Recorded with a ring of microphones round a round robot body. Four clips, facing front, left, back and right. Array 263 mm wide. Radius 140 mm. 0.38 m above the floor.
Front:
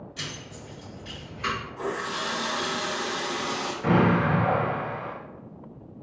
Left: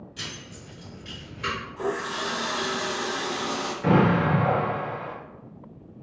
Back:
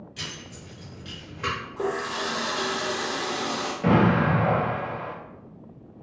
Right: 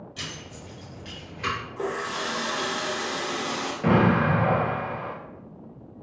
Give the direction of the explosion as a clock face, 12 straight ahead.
5 o'clock.